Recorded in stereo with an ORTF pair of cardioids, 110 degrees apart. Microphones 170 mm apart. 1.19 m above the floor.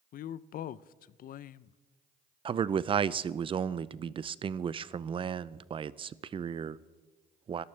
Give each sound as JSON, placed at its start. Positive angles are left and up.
{"t": 0.1, "sound": "a woman speaking", "azimuth_deg": 55, "distance_m": 0.6}
{"t": 2.5, "sound": "a man speaking", "azimuth_deg": -30, "distance_m": 0.5}